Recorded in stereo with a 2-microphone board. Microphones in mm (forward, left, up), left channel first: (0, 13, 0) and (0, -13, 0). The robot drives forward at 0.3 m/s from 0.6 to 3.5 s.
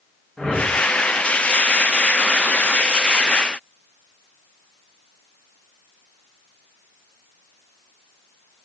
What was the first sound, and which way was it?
A whoosh, 30° left (ahead or behind).